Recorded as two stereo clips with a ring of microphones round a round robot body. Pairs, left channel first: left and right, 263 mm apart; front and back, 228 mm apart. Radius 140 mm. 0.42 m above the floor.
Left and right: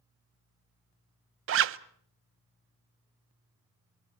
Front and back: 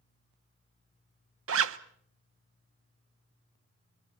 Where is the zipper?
135° right, 0.5 m.